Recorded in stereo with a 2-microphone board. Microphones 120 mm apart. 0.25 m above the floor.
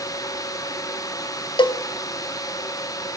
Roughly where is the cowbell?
Left.